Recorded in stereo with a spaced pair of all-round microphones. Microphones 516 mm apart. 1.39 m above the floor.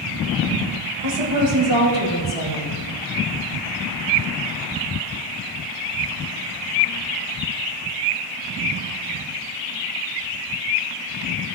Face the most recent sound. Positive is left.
turn(degrees=-85)